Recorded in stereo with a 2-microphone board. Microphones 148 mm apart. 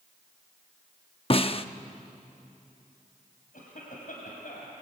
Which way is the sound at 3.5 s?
70° left (ahead or behind).